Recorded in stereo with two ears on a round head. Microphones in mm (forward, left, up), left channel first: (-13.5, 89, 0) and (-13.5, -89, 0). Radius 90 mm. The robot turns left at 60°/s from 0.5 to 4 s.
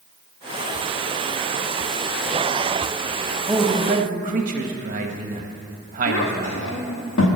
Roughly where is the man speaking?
Ahead.